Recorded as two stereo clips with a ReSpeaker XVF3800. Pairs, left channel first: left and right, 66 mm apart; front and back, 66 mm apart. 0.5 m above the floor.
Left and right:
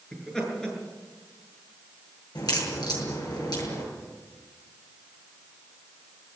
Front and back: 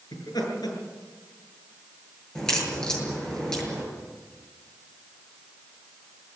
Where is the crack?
80° left, 8 m.